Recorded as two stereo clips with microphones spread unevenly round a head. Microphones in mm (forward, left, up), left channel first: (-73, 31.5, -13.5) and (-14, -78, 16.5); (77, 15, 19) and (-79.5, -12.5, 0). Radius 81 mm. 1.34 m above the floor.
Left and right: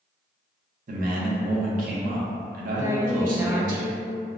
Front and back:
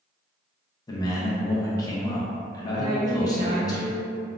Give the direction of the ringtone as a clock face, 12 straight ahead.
I don't hear a ringtone.